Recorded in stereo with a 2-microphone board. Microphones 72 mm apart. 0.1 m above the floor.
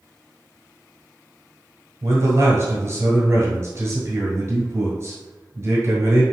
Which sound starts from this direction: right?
A man speaking, at 2.0 s.